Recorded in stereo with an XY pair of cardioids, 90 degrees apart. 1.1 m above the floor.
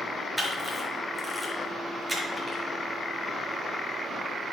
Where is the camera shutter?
5° right, 6 m.